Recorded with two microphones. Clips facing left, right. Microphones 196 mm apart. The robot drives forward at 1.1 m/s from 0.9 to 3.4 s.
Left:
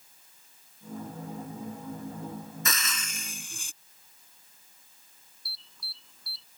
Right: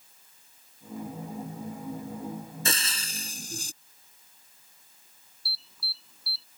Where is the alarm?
5° right (ahead or behind).